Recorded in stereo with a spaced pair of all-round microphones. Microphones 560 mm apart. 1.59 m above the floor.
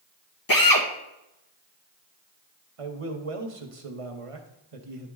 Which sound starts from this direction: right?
A man speaking, at 2.8 s.